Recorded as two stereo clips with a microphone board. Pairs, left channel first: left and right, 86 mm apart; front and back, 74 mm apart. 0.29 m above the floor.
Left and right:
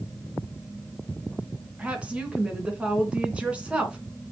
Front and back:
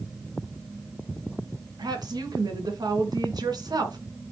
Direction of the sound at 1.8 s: 165° right.